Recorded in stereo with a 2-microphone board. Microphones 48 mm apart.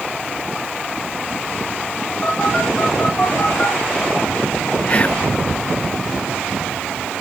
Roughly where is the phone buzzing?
Centre.